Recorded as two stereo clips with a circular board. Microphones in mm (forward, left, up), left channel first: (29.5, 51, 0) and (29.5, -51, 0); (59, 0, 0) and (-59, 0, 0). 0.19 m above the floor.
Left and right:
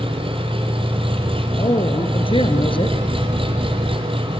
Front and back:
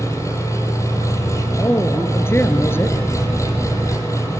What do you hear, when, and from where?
0.0 s an engine running: 65° right, 6 m
1.6 s a woman speaking: 70° left, 2.5 m